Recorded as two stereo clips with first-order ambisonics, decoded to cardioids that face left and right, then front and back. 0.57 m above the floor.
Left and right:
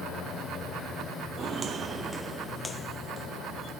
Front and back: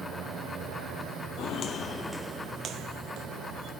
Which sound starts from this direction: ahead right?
Footsteps, at 1.4 s.